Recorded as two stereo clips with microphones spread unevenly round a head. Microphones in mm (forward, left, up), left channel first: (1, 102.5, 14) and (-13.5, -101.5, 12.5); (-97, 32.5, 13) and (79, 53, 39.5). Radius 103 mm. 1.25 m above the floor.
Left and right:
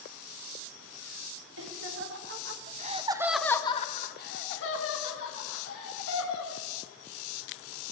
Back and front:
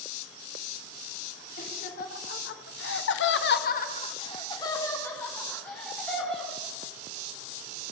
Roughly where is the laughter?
Behind right.